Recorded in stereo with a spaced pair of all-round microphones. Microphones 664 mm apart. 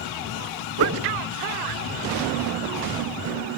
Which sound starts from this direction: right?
A whoosh, at 0.8 s.